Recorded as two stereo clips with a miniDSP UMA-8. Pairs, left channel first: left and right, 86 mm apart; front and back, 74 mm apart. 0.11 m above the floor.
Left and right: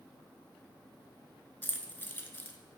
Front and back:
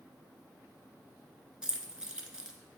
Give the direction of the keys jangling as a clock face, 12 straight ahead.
8 o'clock.